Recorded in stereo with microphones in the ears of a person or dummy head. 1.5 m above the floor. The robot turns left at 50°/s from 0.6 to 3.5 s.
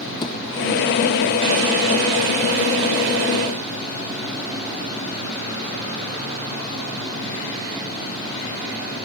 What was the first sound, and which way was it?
A thud, 25° left (ahead or behind).